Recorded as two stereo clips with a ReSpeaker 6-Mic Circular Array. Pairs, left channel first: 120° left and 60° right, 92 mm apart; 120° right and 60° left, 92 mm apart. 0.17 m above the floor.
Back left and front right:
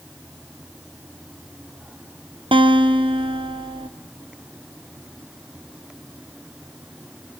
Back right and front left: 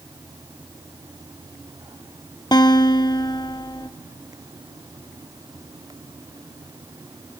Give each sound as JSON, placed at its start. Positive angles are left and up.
{"t": 2.5, "sound": "a guitar", "azimuth_deg": -80, "distance_m": 1.6}